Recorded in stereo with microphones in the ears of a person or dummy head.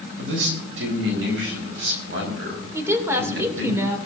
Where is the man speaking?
75° right (ahead or behind), 4 m; by 3.7 s 70° right (ahead or behind), 6.5 m.